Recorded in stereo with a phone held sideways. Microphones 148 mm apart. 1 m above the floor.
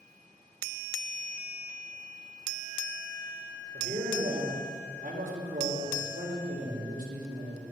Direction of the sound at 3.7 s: 70° right (ahead or behind).